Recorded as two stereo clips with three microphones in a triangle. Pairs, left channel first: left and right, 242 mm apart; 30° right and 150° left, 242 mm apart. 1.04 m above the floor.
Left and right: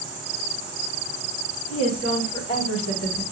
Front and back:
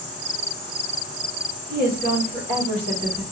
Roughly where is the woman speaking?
Left.